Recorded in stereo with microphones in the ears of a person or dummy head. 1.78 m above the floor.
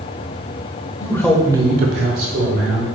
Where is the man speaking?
20° left (ahead or behind), 1.0 m; by 2.9 s 60° right (ahead or behind), 1.5 m.